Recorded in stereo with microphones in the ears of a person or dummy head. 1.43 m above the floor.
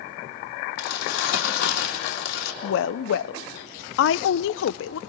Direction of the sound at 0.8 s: 75° left (ahead or behind).